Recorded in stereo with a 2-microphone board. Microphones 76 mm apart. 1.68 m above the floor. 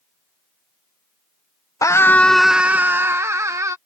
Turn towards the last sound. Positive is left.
turn(degrees=-45)  # may be behind; listen again after turning